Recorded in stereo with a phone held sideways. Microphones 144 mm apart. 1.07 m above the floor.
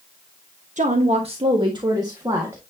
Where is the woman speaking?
60° right (ahead or behind), 1.2 m; by 2.6 s 20° right (ahead or behind), 1.8 m.